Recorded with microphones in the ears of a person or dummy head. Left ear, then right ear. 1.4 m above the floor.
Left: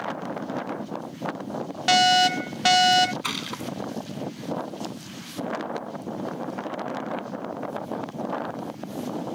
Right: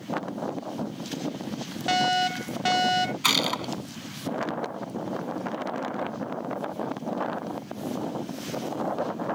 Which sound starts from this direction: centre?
A fire alarm, at 1.9 s.